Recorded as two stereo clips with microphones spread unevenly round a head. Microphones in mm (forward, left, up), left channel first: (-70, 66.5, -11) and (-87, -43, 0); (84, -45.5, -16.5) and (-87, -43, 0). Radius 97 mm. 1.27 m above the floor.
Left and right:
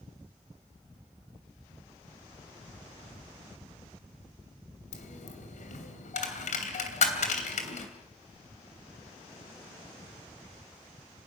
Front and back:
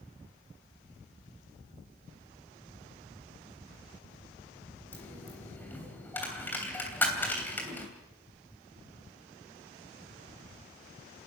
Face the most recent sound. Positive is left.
turn(degrees=80)